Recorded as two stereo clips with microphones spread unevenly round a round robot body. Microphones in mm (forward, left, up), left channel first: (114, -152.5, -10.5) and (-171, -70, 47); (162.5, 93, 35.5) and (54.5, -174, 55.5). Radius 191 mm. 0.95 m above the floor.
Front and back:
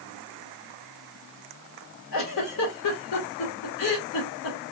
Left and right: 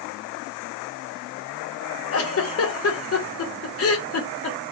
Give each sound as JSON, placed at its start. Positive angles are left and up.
{"t": 2.1, "sound": "a giggle", "azimuth_deg": 25, "distance_m": 0.8}